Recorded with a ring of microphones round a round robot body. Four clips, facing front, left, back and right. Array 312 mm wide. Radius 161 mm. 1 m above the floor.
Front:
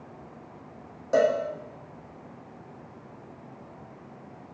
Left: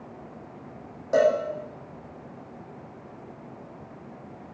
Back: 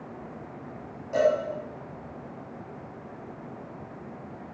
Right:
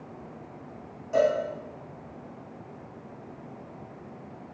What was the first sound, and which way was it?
A cowbell, 45° left.